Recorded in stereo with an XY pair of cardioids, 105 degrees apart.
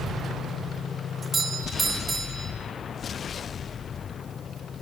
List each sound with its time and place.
1.2 s a doorbell: 20° right, 3.5 m